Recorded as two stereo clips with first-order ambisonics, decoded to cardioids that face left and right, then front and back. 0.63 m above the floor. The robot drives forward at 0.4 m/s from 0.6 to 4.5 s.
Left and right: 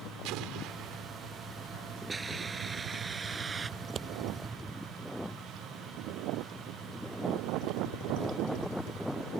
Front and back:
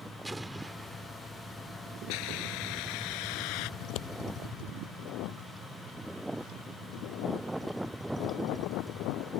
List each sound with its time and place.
0.2 s an explosion: 95° right; by 1.3 s 100° right
2.1 s a hiss: 15° right
3.8 s scissors: 25° right